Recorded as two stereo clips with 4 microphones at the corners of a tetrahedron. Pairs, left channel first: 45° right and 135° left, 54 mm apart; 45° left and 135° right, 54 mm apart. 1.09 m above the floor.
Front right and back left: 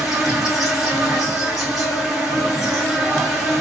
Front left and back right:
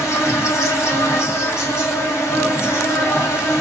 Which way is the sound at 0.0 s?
50° left.